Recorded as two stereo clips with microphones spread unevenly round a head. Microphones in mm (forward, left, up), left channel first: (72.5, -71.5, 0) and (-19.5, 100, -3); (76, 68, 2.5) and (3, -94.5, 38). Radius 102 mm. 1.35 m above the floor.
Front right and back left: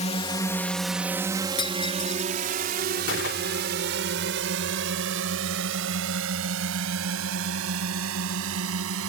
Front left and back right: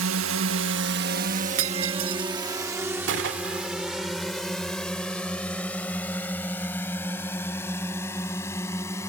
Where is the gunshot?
100° right.